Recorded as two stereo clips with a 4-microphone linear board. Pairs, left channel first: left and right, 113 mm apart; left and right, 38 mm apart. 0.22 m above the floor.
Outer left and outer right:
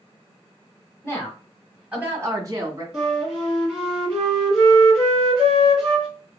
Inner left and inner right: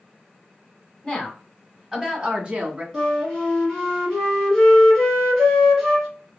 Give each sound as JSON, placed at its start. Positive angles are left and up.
{"t": 1.0, "sound": "a woman speaking", "side_deg": 25, "distance_m": 1.2}
{"t": 2.9, "sound": "a flute", "side_deg": 0, "distance_m": 2.0}